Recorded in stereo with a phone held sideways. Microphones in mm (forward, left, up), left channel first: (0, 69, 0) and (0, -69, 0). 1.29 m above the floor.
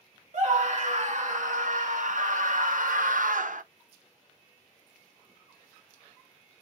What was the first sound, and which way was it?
A scream, 60° right (ahead or behind).